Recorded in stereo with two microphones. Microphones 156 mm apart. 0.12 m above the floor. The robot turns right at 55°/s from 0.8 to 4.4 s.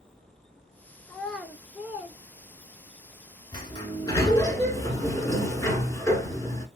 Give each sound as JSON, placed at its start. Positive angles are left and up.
{"t": 1.1, "sound": "a child speaking", "side_deg": 10, "distance_m": 0.7}
{"t": 3.5, "sound": "a sliding door", "side_deg": 25, "distance_m": 1.0}